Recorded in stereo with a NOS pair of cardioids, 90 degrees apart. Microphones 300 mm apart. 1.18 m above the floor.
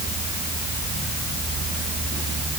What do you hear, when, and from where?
Only background noise.